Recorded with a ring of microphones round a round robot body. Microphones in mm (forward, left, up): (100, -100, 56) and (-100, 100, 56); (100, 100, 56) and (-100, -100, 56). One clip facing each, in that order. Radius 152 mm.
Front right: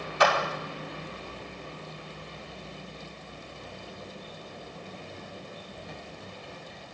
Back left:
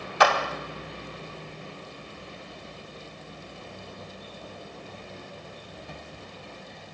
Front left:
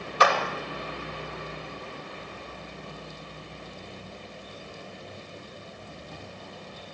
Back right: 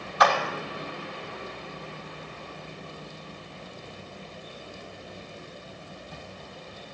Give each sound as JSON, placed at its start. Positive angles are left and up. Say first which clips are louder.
{"t": 0.2, "sound": "a clap", "louder": "back left 1 dB, even", "azimuth_deg": 105, "distance_m": 2.5}